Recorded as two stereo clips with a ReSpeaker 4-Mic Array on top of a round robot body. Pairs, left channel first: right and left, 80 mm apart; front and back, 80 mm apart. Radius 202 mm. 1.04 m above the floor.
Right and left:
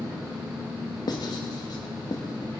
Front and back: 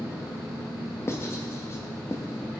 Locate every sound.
0.0 s an engine running: 80° left, 5 m
1.1 s writing: 55° right, 0.7 m